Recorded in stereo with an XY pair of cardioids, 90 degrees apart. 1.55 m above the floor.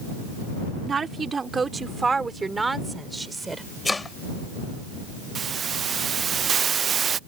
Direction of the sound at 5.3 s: 50° right.